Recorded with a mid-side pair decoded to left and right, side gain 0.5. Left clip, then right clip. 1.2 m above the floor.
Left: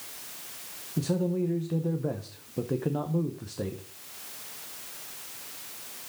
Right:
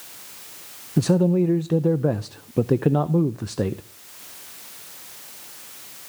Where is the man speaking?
55° right, 0.6 m.